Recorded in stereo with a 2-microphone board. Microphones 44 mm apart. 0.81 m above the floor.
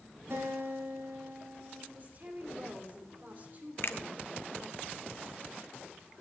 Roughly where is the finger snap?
Left.